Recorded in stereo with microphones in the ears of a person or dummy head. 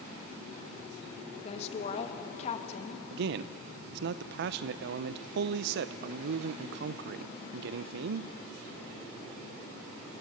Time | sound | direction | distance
1.4 | a woman speaking | 35° left (ahead or behind) | 1.5 m
3.1 | a man speaking | 65° right (ahead or behind) | 0.5 m